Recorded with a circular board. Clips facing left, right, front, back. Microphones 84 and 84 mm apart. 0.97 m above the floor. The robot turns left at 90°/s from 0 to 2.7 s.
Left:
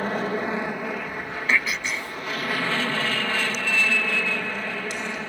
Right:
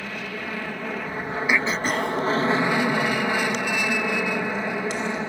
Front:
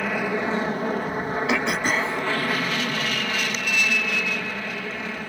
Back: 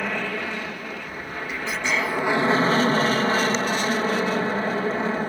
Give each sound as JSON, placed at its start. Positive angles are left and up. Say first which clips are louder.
{"t": 0.0, "sound": "an aircraft", "louder": "left 7 dB, front 3 dB", "azimuth_deg": 90}
{"t": 1.5, "sound": "throat clearing", "louder": "right 2 dB, front 1 dB", "azimuth_deg": -10}